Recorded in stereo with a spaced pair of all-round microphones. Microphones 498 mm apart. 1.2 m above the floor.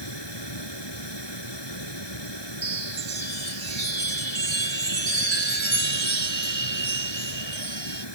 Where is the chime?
65° right (ahead or behind).